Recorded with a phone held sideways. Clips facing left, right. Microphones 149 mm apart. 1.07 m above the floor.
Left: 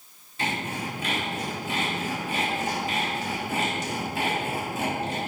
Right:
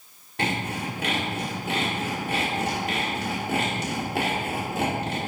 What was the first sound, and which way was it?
Sawing, 70° right (ahead or behind).